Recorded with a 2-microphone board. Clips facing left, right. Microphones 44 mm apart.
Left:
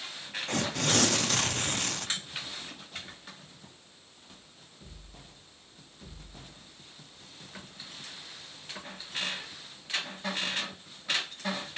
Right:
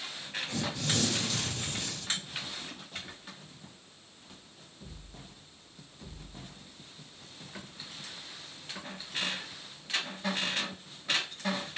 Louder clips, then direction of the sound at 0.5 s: Left 5 dB; 65° left (ahead or behind).